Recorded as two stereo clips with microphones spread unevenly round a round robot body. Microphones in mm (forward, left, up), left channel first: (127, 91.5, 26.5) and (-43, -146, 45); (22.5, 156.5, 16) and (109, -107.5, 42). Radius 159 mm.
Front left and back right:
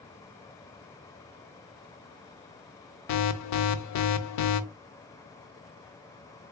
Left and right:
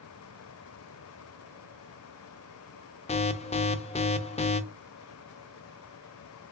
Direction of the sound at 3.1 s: 45° left.